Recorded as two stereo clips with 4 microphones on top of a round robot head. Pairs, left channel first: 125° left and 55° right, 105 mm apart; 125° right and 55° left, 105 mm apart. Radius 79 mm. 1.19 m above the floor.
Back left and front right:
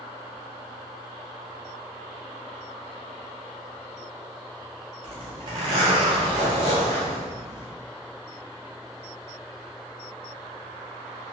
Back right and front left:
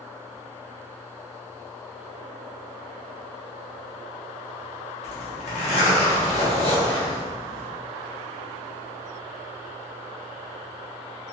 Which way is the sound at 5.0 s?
90° right.